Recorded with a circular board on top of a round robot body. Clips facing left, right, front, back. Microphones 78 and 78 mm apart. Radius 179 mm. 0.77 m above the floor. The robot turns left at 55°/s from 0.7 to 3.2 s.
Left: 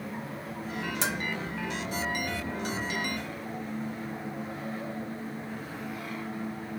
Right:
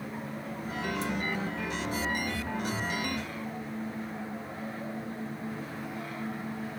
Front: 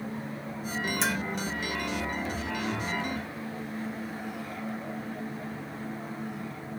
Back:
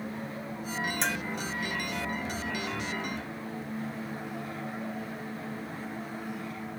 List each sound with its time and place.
1.0 s a bell: 85° left; by 1.2 s 75° left